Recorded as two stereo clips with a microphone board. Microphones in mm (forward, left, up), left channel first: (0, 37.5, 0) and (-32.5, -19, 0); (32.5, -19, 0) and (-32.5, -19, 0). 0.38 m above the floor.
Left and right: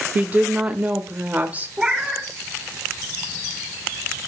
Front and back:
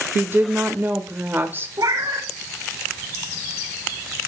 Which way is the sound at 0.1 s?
165° right.